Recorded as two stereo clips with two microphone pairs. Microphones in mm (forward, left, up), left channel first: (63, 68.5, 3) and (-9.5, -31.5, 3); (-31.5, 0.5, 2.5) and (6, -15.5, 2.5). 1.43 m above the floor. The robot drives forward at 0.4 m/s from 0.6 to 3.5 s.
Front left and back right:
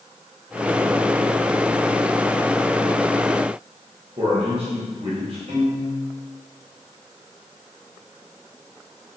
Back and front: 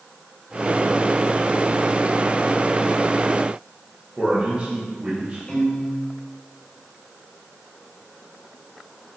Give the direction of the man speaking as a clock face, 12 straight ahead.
3 o'clock.